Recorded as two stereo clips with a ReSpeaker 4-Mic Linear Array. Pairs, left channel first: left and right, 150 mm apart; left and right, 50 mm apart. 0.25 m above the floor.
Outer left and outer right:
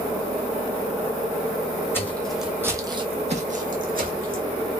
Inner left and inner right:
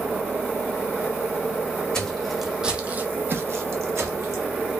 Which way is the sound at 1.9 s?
15° left (ahead or behind).